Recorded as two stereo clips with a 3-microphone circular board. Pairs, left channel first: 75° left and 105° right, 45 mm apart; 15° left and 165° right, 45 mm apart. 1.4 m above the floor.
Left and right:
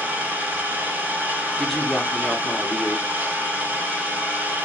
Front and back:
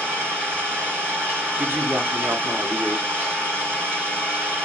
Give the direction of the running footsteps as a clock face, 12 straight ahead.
No running footsteps in this recording.